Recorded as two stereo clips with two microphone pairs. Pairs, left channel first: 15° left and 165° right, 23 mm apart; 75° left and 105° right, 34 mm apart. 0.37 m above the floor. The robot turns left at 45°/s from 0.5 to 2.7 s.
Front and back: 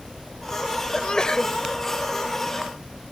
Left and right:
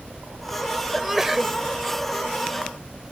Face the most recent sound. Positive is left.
turn(degrees=-90)